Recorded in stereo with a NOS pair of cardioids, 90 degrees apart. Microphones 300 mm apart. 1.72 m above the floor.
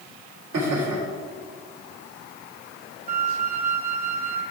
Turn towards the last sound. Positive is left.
turn(degrees=-30)